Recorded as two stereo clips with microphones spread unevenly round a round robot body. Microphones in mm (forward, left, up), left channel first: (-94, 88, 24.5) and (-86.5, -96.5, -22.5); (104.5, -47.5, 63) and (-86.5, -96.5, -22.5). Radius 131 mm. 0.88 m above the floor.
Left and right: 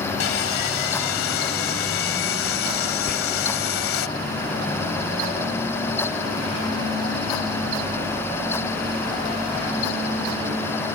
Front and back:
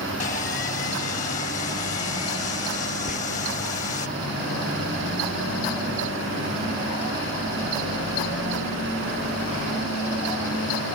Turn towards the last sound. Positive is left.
turn(degrees=130)